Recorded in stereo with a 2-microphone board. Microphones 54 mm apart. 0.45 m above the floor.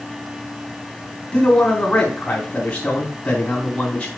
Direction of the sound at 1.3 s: 25° left (ahead or behind).